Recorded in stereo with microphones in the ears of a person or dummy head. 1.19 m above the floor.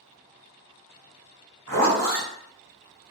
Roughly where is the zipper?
Right.